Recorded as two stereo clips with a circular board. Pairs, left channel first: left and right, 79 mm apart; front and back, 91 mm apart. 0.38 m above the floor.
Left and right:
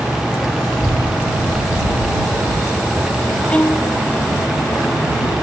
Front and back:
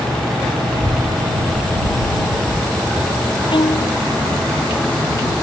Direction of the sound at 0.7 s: 165° left.